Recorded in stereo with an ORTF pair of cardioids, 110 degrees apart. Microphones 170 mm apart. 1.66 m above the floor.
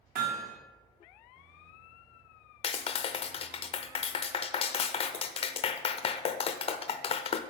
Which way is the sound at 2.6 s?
35° left.